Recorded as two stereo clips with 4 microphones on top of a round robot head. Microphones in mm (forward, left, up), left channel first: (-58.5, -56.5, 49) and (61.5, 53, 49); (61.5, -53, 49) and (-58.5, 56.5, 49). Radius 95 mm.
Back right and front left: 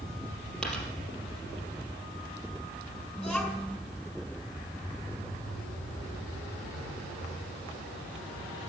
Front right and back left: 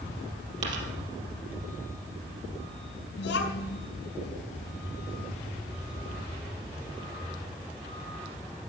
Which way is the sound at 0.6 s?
140° left.